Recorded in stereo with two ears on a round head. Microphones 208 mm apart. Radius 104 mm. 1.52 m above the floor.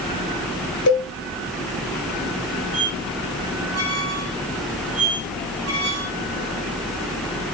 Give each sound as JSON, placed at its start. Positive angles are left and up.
{"t": 0.9, "sound": "a cowbell", "side_deg": 60, "distance_m": 2.0}
{"t": 2.7, "sound": "a squeak", "side_deg": -75, "distance_m": 6.0}